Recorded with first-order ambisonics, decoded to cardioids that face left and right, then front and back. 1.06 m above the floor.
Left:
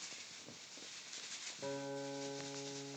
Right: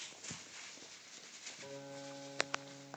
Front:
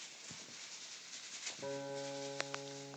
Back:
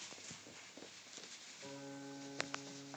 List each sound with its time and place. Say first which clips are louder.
1.6 s a guitar: left 7 dB, front 8 dB; 40° left, 1.0 m